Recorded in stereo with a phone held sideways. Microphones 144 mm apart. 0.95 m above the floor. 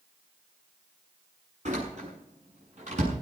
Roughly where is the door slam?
Right.